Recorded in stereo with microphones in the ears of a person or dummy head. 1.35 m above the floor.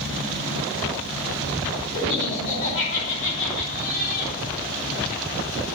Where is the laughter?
60° left (ahead or behind), 7.5 m; by 4.3 s 80° left, 8 m.